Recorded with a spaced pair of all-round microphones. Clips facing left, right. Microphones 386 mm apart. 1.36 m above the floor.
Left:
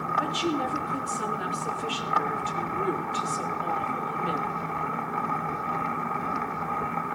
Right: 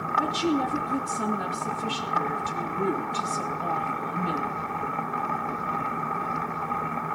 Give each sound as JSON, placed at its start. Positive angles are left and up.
{"t": 0.2, "sound": "a woman speaking", "side_deg": -55, "distance_m": 2.5}